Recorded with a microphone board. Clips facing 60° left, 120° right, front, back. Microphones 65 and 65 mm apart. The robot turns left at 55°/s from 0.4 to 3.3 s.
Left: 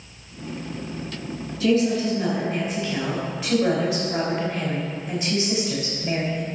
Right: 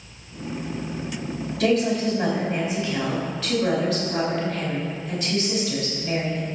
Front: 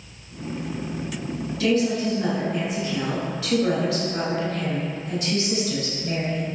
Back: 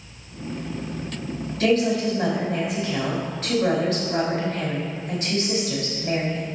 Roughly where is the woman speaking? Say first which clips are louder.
Left 1 dB, back 2 dB; behind right.